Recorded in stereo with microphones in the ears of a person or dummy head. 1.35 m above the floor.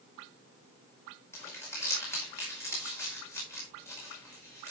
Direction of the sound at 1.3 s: 10° left (ahead or behind).